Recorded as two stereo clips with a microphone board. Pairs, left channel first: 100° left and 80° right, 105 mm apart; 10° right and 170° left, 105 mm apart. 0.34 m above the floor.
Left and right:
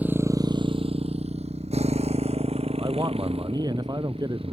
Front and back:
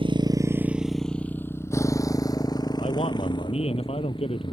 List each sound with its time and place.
0.0 s a motorcycle: 155° right; by 4.5 s 50° right
2.8 s a man speaking: 30° right